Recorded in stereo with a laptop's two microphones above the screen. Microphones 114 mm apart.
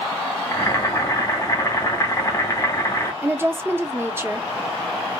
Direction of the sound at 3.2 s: 20° right (ahead or behind).